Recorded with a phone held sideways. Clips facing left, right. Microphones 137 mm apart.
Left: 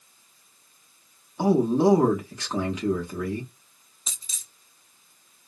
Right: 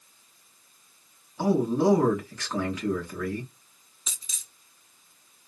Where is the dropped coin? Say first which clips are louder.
Left 1 dB; 40° left (ahead or behind), 1.0 m.